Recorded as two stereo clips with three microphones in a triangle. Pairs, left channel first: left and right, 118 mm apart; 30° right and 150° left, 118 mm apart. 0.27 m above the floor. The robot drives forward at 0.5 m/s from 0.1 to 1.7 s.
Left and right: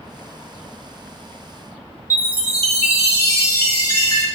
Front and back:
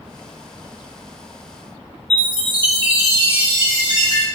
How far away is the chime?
About 0.5 m.